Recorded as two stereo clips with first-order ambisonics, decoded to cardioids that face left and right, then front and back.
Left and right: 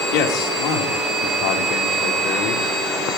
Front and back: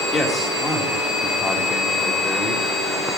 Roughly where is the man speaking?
Left.